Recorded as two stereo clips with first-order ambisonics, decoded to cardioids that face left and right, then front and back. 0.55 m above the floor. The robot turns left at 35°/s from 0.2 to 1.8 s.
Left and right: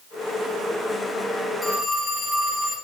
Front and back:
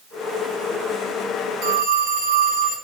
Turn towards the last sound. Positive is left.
turn(degrees=175)